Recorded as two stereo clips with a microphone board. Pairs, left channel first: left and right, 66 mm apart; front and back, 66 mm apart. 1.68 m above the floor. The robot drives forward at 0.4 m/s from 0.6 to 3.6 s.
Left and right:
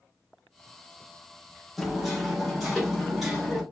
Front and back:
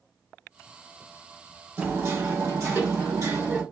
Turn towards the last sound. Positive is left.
turn(degrees=180)